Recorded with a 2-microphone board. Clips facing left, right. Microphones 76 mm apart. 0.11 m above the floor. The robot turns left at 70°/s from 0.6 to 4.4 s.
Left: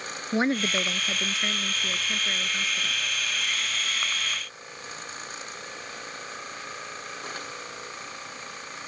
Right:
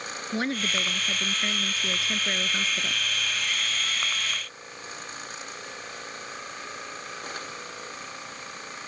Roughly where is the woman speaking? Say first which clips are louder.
Left 4 dB; left.